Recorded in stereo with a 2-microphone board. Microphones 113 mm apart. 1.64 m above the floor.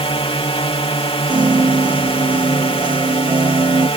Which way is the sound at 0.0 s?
60° left (ahead or behind).